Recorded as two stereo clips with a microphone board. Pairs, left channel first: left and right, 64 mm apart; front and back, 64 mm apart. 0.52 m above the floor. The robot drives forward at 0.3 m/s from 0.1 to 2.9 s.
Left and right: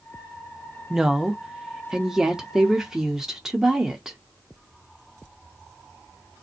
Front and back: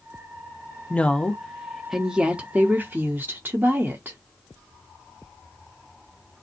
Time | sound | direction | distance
0.9 | a woman speaking | 25° right | 0.7 m